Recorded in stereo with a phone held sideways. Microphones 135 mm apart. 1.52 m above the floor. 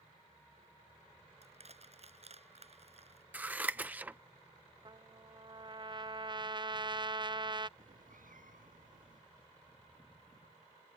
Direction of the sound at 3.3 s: 10° right (ahead or behind).